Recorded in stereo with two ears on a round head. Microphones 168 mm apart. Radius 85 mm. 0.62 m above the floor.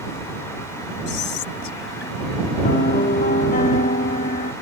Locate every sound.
1.1 s whispering: 65° left (ahead or behind)
2.6 s a piano: 45° left (ahead or behind)